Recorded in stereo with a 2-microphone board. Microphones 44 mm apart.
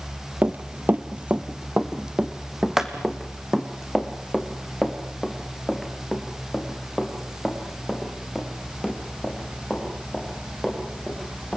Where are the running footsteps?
45° right (ahead or behind), 1.0 m; by 11.6 s 5° left (ahead or behind), 10 m.